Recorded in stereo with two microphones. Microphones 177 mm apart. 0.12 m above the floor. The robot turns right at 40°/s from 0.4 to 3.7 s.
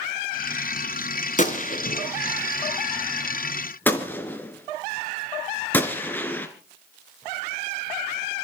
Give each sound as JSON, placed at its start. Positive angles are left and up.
{"t": 1.4, "sound": "a gunshot", "side_deg": 45, "distance_m": 1.9}